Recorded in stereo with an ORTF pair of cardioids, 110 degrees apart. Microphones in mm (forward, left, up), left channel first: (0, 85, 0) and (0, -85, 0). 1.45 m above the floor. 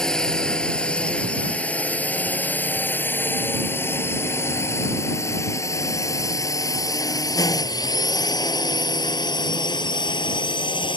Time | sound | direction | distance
0.0 | a drone | 5° left | ?